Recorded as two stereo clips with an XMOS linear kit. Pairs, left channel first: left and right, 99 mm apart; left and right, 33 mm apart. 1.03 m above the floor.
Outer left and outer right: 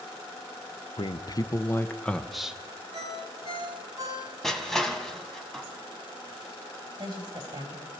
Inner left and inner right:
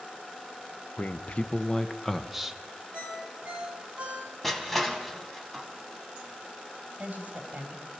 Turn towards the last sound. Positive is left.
turn(degrees=-45)  # may be behind; listen again after turning